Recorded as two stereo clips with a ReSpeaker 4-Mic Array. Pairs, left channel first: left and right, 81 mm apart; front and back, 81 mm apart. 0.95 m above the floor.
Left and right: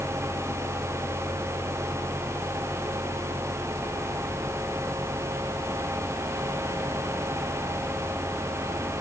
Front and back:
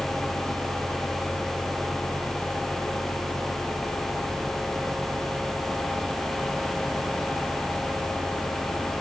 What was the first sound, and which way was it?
Only background noise.